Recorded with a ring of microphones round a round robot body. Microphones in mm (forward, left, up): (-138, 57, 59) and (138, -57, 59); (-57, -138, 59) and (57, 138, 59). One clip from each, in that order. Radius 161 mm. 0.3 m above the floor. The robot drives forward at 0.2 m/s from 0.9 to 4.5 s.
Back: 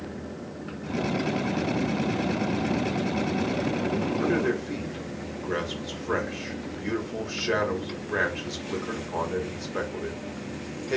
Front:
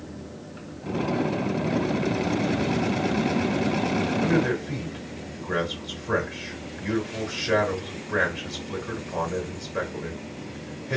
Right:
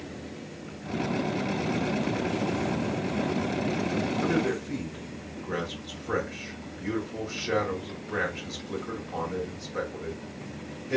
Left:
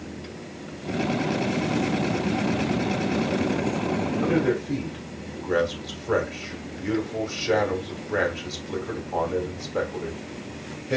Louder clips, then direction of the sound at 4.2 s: Even, left 6 dB; 155° left.